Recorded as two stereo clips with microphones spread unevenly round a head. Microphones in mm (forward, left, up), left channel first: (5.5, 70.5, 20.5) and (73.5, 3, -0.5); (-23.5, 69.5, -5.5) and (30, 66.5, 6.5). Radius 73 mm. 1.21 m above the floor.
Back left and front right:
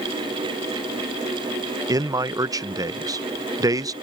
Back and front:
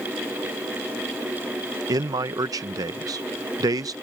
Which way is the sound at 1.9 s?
5° left.